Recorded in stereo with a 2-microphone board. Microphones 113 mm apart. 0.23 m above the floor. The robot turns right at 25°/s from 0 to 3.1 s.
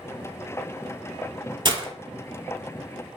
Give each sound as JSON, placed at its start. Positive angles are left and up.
{"t": 1.6, "sound": "breaking glass", "side_deg": -45, "distance_m": 0.5}